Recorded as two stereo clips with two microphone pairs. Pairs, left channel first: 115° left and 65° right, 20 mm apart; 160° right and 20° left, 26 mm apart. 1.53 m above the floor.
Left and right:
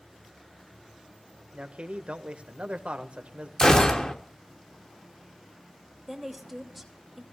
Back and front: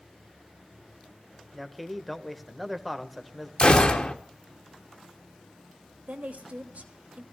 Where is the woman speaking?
20° left, 3 m.